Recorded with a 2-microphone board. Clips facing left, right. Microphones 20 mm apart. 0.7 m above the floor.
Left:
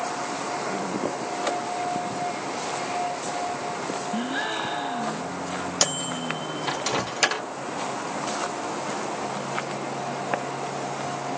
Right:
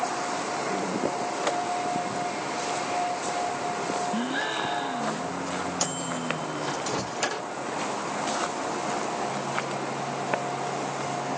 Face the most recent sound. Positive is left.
turn(degrees=40)  # may be behind; listen again after turning